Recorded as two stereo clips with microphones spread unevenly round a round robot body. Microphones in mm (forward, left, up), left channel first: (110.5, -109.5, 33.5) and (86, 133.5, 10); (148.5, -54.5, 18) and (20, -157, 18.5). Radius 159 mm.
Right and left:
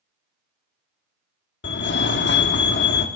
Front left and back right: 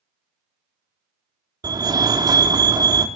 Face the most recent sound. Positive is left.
turn(degrees=-90)